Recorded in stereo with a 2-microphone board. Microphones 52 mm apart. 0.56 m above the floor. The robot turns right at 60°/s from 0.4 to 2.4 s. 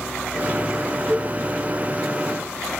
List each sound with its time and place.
1.1 s a cowbell: 80° right, 1.6 m; by 1.3 s 70° right (ahead or behind), 1.6 m